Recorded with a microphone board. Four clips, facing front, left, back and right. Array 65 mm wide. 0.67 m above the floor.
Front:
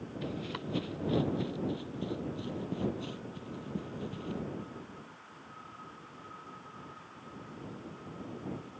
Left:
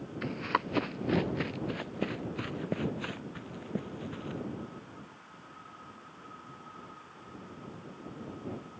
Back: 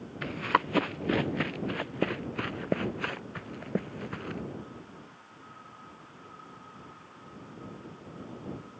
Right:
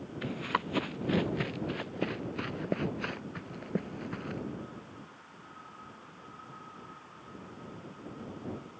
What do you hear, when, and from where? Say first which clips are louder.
0.2 s running footsteps: left 1 dB, back 12 dB; 170° left; by 4.4 s 160° right